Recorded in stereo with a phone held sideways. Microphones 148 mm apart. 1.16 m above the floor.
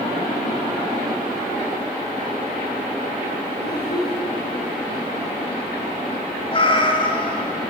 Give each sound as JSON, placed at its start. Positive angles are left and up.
{"t": 3.6, "sound": "a child speaking", "side_deg": 85, "distance_m": 7.5}
{"t": 6.5, "sound": "a cat meowing", "side_deg": 35, "distance_m": 2.0}